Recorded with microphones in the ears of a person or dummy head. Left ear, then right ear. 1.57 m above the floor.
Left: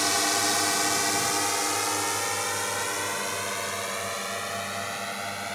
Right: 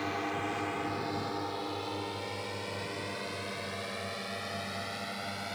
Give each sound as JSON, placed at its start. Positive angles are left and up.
{"t": 0.0, "sound": "a drone", "side_deg": 90}